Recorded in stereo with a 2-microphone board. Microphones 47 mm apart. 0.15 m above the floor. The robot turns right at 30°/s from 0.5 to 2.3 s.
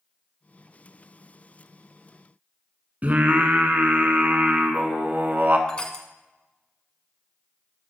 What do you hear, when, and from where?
3.0 s singing: 35° right (ahead or behind), 0.9 m
5.7 s crushing: 20° left (ahead or behind), 1.0 m